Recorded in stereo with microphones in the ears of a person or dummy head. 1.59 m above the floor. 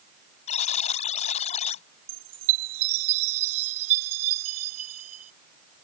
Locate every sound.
0.5 s a buzzer: 45° left (ahead or behind)
2.1 s a chime: 35° right (ahead or behind)